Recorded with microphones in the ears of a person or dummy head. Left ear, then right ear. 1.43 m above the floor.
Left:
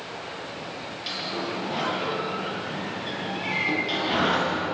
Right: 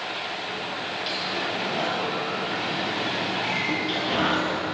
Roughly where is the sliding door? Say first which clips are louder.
Right 1 dB; centre.